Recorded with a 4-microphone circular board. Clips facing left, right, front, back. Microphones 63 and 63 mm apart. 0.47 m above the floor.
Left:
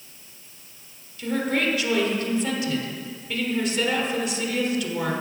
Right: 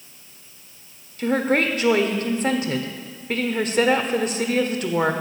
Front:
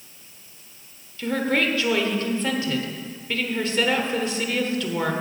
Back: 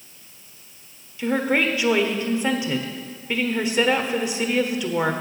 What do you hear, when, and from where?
1.2 s a woman speaking: 110° right, 1.0 m